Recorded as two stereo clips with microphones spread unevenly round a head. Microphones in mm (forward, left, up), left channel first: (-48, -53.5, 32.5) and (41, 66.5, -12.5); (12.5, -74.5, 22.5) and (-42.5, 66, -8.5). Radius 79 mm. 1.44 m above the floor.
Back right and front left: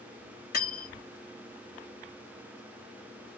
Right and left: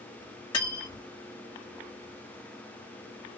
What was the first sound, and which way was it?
Cutlery clinking, 120° right.